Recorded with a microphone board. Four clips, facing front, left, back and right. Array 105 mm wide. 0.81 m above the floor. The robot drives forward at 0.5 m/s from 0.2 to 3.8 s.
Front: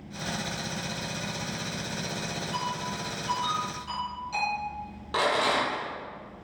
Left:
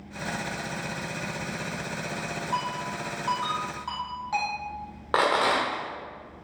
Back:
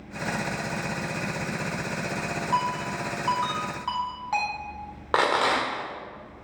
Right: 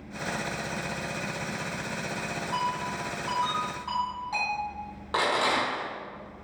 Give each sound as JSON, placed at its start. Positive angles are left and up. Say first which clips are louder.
{"t": 2.5, "sound": "a ringtone", "louder": "right 1 dB, back 7 dB", "azimuth_deg": 160, "distance_m": 2.5}
{"t": 5.1, "sound": "a rattle", "louder": "left 3 dB, back 3 dB", "azimuth_deg": 145, "distance_m": 1.5}